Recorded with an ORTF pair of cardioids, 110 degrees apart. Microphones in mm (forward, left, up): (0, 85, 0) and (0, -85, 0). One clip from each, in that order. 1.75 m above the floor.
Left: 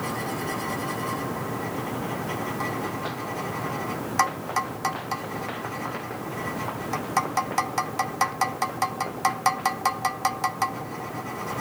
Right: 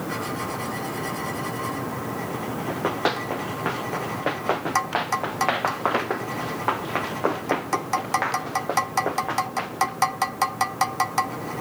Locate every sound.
2.7 s running footsteps: 65° right